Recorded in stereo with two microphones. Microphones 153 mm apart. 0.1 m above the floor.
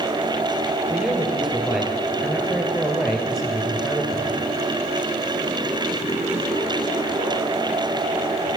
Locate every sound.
0.9 s a man speaking: centre (ahead or behind), 2 m